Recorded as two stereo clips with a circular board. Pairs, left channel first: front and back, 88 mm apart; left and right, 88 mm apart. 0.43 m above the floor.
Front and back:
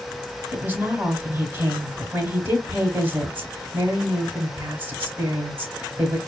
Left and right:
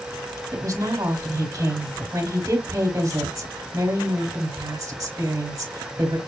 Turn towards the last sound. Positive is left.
turn(degrees=-120)